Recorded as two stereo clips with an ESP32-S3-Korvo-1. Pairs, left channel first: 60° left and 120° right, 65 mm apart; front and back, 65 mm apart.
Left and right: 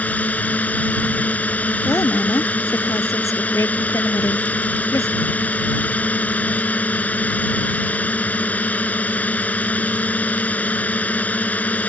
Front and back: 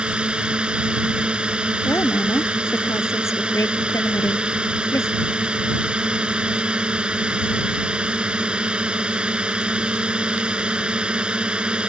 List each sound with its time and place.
0.0 s a drone: 115° left
1.9 s a woman speaking: 35° left